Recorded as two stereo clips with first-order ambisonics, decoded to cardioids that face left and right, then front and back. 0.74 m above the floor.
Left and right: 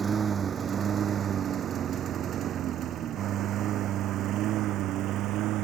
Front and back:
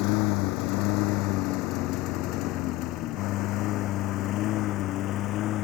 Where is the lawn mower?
20° right; by 5.6 s 45° right.